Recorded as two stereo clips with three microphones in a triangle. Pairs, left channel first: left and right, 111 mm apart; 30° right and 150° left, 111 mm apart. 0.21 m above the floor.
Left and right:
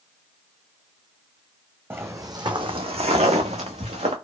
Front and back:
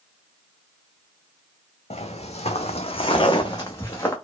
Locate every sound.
1.9 s footsteps: 20° right, 0.8 m; by 4.1 s 95° right, 1.1 m